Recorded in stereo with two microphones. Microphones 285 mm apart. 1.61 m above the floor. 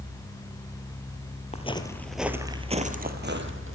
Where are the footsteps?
25° left (ahead or behind), 1.7 m; by 3.8 s 50° right (ahead or behind), 2.5 m.